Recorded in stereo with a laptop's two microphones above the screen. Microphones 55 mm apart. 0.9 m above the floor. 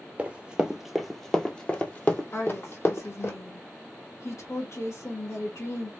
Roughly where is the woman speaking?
Left.